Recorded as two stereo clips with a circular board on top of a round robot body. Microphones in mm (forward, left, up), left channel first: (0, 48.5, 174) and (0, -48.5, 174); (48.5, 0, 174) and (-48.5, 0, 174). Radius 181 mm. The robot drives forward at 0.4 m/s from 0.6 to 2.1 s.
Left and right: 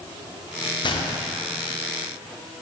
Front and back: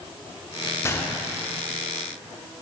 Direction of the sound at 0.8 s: 60° left.